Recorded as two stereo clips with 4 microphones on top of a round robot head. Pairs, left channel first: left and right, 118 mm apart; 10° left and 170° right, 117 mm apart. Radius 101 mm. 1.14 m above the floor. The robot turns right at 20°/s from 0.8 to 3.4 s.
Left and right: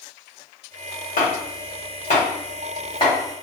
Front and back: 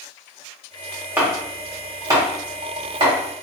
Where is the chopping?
115° left, 1.5 m; by 3.1 s 155° left, 1.5 m.